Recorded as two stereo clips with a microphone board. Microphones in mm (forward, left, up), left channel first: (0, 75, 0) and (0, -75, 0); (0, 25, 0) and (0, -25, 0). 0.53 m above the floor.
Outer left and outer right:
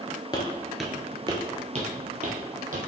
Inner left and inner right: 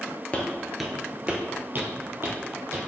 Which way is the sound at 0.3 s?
30° left (ahead or behind).